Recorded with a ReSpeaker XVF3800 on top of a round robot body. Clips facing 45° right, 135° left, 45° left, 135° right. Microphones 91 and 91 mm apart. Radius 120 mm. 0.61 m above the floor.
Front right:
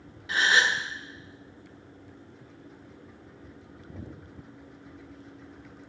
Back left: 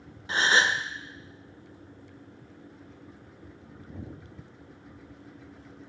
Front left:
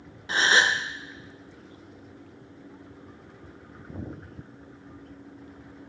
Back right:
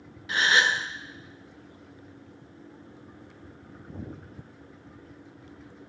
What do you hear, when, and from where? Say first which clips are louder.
0.3 s a gasp: even, front left 1 dB; 90° left, 0.8 m